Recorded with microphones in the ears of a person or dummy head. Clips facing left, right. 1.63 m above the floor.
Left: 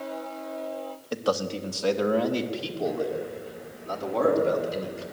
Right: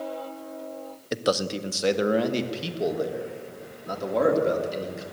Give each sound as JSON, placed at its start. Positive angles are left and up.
{"t": 1.1, "sound": "a man speaking", "side_deg": -25, "distance_m": 0.7}